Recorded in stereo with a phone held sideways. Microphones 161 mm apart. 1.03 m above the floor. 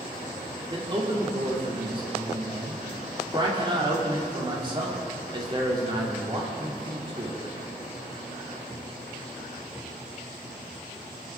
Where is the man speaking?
30° right (ahead or behind), 2.5 m.